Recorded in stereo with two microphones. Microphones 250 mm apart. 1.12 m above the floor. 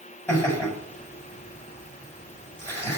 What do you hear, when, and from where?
0.3 s laughter: 5° left (ahead or behind), 6.5 m